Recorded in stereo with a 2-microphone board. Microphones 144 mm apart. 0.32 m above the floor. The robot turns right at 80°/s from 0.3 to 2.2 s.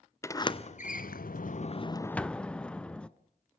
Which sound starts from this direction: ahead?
A sliding door, at 0.2 s.